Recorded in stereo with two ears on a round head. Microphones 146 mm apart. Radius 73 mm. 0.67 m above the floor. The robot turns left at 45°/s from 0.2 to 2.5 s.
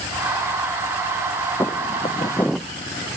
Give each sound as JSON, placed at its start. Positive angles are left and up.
{"t": 1.6, "sound": "footsteps", "side_deg": 15}